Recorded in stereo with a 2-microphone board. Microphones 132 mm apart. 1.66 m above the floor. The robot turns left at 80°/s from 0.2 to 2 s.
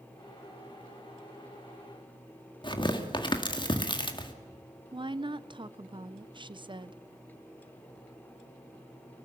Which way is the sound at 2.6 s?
35° left (ahead or behind).